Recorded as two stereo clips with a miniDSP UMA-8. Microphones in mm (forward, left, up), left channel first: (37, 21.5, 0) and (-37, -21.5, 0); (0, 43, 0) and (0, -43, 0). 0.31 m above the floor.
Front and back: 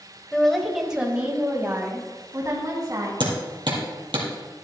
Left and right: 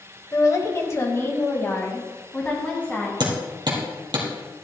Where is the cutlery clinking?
No cutlery clinking in this recording.